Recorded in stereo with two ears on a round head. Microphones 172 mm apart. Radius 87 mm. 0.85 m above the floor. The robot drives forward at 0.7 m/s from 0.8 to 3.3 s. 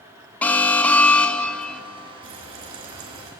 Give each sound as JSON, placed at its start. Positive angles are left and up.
{"t": 0.4, "sound": "an alarm", "side_deg": 10, "distance_m": 1.2}
{"t": 2.2, "sound": "frying", "side_deg": -80, "distance_m": 5.5}